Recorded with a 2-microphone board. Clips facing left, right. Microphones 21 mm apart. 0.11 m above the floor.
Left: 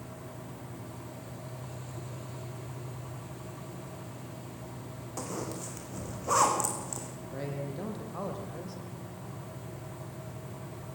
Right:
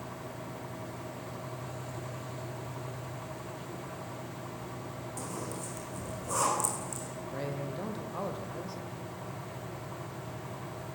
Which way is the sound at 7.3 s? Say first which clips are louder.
Even; 10° right (ahead or behind).